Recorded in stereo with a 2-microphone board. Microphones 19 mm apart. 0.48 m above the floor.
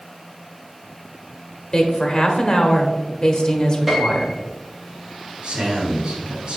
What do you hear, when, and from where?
1.7 s a woman speaking: 40° left (ahead or behind), 1.1 m
3.9 s a piano: 5° right (ahead or behind), 2.5 m
5.4 s a man speaking: 60° right (ahead or behind), 2.5 m